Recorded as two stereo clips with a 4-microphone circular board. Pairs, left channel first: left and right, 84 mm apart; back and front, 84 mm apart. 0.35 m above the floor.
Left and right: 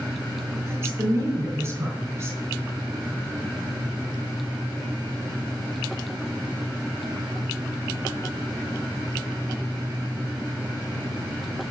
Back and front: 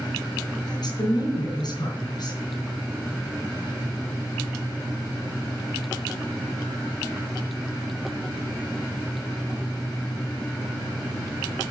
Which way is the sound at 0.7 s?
145° right.